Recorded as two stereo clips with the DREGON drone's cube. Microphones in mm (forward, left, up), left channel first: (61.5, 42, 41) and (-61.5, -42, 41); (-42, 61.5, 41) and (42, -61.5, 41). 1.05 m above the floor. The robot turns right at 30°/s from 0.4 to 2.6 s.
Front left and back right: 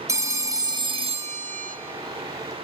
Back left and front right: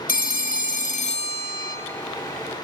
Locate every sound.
0.1 s a phone ringing: 145° left, 0.7 m; by 1.8 s 175° right, 0.7 m